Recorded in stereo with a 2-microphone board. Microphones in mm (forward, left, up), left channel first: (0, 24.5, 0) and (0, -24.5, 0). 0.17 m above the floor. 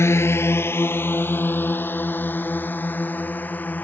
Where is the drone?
60° left (ahead or behind); by 3.9 s 35° left (ahead or behind).